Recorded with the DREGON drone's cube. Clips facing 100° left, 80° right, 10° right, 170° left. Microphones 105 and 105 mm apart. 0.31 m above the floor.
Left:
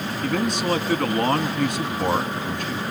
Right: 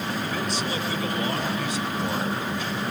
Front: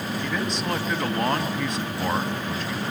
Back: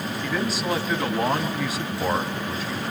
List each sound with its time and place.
0.2 s a man speaking: 85° left, 2.5 m